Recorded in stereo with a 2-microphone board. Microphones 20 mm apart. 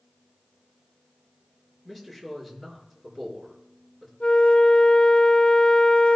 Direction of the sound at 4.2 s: 60° left (ahead or behind).